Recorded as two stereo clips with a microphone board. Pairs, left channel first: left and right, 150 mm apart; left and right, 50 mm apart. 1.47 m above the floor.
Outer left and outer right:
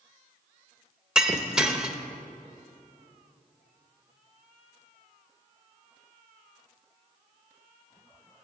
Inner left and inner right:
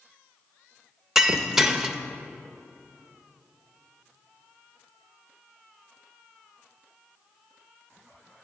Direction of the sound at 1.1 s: 5° right (ahead or behind).